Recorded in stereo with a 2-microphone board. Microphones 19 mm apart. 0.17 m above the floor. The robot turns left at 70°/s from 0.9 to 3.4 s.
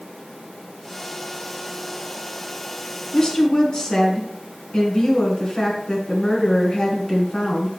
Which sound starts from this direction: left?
A woman speaking, at 3.1 s.